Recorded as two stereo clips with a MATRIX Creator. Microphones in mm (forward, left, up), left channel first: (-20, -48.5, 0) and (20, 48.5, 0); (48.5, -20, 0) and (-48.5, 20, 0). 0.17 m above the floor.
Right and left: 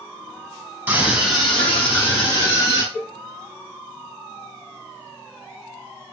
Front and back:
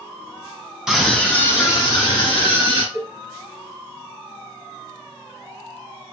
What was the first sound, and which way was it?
A scream, 80° left.